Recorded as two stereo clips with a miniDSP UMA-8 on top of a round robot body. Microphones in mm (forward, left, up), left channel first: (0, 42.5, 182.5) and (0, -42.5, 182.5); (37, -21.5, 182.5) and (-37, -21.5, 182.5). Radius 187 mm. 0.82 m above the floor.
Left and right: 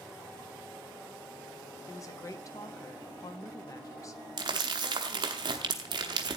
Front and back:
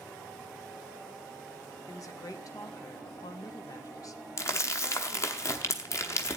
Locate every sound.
1.9 s a woman speaking: 40° left, 1.2 m
4.4 s crumpling: 50° right, 0.7 m